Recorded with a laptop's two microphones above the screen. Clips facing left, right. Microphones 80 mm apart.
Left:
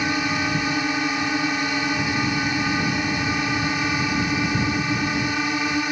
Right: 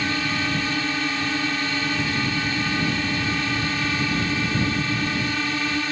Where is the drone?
15° left (ahead or behind).